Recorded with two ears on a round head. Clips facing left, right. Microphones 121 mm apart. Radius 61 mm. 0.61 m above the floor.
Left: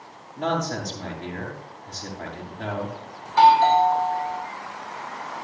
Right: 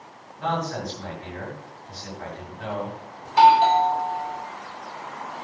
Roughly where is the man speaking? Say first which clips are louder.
Left 1 dB; left.